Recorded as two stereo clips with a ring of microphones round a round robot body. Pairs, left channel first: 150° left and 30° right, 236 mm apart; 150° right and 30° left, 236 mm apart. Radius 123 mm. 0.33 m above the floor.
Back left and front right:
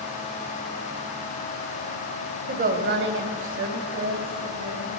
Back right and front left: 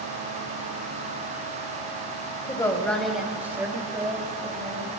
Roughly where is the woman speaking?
Right.